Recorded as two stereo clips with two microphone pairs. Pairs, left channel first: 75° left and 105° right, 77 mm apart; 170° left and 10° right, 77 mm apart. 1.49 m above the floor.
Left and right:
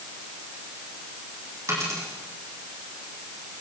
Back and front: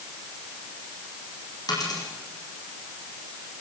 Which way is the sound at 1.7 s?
160° right.